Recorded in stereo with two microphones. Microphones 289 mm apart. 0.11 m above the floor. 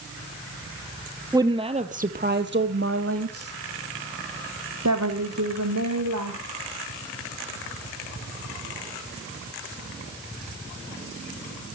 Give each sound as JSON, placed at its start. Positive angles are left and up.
{"t": 1.3, "sound": "a woman speaking", "side_deg": -10, "distance_m": 2.5}